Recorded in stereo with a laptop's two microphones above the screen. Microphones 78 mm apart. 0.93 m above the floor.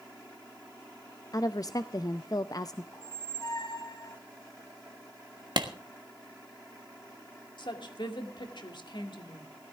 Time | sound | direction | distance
1.3 | a woman speaking | 50° left (ahead or behind) | 0.6 m
2.9 | a squeak | 50° left (ahead or behind) | 1.6 m
5.6 | a clap | 70° right (ahead or behind) | 1.4 m
7.6 | a woman speaking | 75° left (ahead or behind) | 2 m